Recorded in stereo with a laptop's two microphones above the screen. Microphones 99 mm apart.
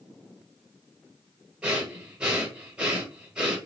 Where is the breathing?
10° right (ahead or behind), 1.0 m.